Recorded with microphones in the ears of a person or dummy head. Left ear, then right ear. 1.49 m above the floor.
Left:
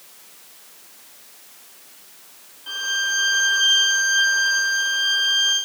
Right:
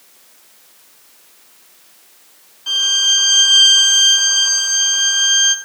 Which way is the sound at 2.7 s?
80° right.